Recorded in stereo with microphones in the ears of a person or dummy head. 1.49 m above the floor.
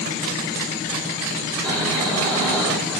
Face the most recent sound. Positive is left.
turn(degrees=10)  # may be behind; listen again after turning